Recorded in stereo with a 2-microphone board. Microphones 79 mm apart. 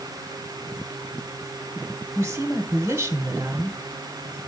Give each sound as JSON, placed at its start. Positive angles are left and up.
{"t": 2.1, "sound": "a woman speaking", "side_deg": -30, "distance_m": 1.3}